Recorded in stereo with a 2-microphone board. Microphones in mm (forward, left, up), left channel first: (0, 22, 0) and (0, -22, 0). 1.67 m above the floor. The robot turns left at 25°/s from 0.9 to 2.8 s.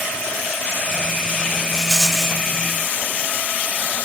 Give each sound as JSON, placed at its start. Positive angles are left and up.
{"t": 1.7, "sound": "a rattle", "side_deg": -5, "distance_m": 1.5}